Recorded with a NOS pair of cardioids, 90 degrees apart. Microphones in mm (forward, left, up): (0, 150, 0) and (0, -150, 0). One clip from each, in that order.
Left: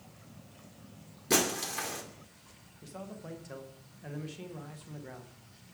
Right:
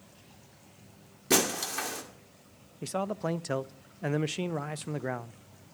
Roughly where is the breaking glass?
Ahead.